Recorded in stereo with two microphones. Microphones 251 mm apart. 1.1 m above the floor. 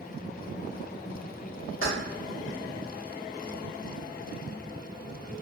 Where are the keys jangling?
55° left (ahead or behind), 1.2 m.